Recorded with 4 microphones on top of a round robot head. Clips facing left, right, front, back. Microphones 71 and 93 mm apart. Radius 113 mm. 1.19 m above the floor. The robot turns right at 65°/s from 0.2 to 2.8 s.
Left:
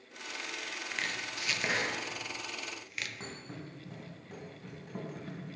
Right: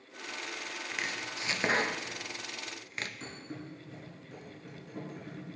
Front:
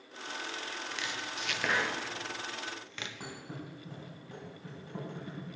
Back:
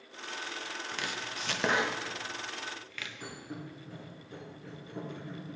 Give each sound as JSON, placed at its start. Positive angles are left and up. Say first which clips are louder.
{"t": 0.9, "sound": "chopping", "louder": "even, back 2 dB", "azimuth_deg": -175, "distance_m": 0.7}
{"t": 3.2, "sound": "a thud", "louder": "right 1 dB, back 1 dB", "azimuth_deg": 55, "distance_m": 4.0}